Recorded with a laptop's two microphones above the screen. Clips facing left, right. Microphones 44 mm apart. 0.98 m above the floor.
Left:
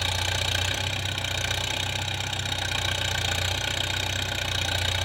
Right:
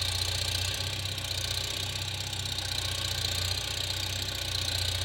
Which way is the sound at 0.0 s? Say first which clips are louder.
Left 6 dB; 55° left (ahead or behind).